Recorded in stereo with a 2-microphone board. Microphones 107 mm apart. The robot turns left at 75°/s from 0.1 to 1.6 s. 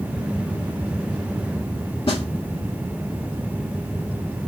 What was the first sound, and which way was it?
A snare drum, 60° left (ahead or behind).